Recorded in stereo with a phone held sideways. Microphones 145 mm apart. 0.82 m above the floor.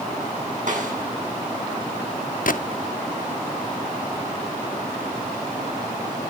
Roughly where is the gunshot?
Left.